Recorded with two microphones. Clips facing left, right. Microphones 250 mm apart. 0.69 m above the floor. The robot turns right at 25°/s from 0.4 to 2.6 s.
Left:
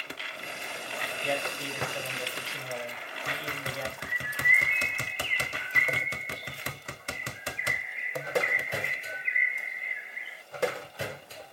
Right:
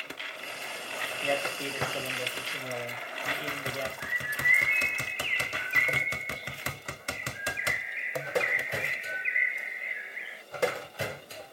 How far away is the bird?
About 0.8 m.